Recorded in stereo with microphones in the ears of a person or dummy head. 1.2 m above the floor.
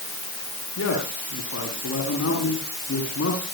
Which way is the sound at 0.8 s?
80° left.